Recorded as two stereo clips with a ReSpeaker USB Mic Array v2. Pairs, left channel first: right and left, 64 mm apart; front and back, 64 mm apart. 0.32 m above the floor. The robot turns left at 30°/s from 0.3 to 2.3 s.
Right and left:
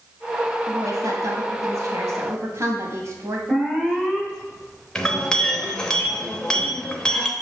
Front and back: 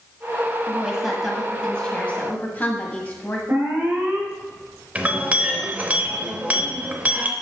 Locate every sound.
0.7 s a woman speaking: 110° left, 1.6 m; by 3.4 s 60° left, 1.6 m
3.5 s an alarm: 165° left, 1.4 m
5.0 s a clink: 155° right, 0.7 m